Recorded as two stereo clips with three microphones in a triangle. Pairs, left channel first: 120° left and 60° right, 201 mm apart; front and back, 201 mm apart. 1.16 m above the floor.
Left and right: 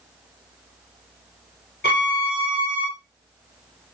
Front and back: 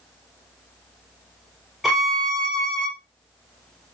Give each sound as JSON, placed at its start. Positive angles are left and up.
{"t": 1.8, "sound": "a violin", "azimuth_deg": 90, "distance_m": 0.7}